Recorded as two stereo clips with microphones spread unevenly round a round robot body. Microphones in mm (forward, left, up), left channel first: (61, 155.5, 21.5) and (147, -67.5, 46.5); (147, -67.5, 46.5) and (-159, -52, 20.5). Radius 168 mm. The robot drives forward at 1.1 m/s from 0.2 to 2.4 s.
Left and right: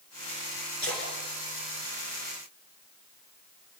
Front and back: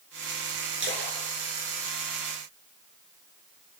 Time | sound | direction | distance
0.8 | a splash | 130° right | 8.5 m